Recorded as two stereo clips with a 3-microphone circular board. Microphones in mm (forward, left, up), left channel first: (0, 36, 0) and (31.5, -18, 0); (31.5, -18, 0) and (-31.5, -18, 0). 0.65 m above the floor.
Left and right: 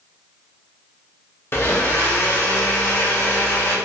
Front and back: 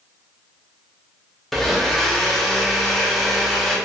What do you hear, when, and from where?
1.5 s a blender: 90° left, 0.6 m